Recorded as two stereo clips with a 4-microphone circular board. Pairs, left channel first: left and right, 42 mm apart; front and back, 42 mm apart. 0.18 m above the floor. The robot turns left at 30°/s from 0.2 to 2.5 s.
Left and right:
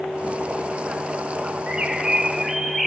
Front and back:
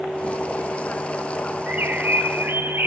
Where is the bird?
150° right, 0.9 m; by 2.9 s 175° right, 0.9 m.